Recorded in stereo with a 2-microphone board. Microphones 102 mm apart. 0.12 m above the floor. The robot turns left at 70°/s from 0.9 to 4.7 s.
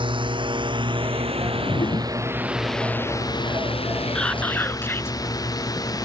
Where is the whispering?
165° left; by 5.2 s 125° left.